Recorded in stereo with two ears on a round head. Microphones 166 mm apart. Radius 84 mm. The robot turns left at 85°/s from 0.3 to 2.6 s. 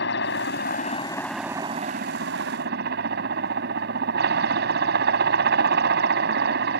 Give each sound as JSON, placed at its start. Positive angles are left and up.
{"t": 0.0, "sound": "a helicopter", "azimuth_deg": 90}